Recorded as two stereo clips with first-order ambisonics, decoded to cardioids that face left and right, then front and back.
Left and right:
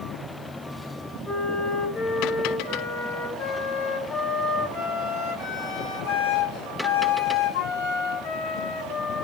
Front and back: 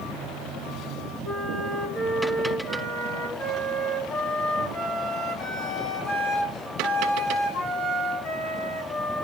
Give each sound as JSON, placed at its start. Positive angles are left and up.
{"t": 1.2, "sound": "a flute", "azimuth_deg": 55, "distance_m": 3.0}